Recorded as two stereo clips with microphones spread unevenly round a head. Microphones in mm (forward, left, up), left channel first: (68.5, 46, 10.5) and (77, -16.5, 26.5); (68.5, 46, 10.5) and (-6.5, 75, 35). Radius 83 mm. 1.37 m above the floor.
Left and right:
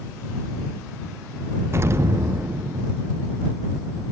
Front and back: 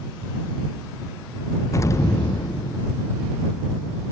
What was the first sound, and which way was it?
An explosion, 30° right.